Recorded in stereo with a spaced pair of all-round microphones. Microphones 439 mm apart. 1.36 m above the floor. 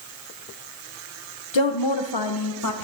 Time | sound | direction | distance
1.5 | a woman speaking | 80° left | 1.0 m